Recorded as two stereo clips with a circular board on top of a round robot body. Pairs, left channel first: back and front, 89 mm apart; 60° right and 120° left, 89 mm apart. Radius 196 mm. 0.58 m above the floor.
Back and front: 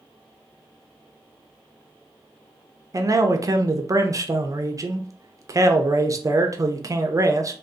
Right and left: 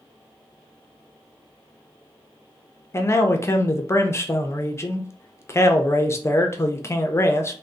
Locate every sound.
2.9 s a man speaking: 20° right, 0.7 m